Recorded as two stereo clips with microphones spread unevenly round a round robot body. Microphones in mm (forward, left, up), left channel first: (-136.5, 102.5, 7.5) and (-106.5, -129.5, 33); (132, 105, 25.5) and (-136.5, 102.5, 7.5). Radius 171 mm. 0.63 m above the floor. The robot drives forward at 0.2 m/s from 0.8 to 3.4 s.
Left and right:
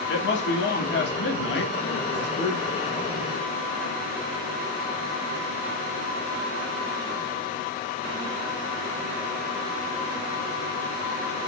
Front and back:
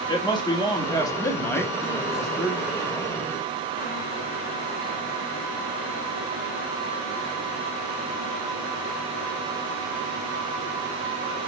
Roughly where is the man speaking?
Left.